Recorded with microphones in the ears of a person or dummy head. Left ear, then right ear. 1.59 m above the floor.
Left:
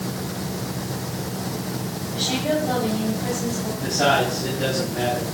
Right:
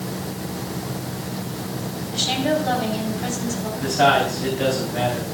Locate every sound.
2.1 s a woman speaking: 55° right (ahead or behind), 5 m
3.8 s a man speaking: 60° right (ahead or behind), 5 m